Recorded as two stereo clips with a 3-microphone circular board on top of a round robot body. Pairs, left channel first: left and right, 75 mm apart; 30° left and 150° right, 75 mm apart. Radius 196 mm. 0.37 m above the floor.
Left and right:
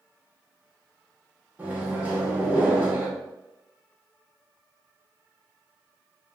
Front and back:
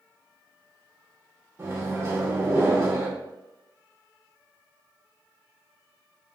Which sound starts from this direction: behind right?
A microwave, at 1.6 s.